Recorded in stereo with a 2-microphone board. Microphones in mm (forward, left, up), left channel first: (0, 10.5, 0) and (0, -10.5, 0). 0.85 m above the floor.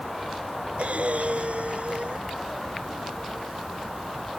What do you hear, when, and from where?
0.8 s breathing: 80° right